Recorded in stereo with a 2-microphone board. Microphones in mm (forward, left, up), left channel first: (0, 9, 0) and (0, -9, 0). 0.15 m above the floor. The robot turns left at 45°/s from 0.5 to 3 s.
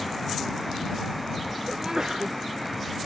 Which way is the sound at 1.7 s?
135° right.